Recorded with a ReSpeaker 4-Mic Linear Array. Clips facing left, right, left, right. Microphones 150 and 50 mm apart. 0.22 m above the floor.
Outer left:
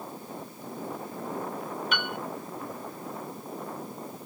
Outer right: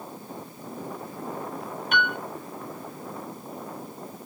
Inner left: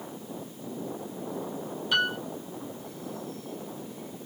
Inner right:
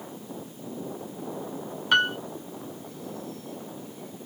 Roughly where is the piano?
Right.